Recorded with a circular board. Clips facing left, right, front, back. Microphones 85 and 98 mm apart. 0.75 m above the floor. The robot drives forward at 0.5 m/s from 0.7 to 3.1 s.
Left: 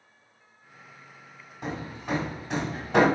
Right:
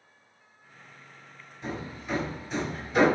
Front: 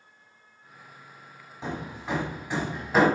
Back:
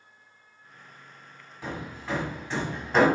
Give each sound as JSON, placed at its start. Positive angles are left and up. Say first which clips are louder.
{"t": 1.6, "sound": "hammering", "louder": "left 2 dB, front 1 dB", "azimuth_deg": 65, "distance_m": 2.0}